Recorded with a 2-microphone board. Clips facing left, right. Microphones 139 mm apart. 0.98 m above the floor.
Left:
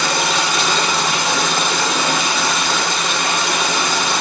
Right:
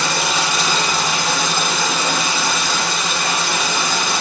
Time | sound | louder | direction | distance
0.0 | running water | left 1 dB | centre (ahead or behind) | 5.5 m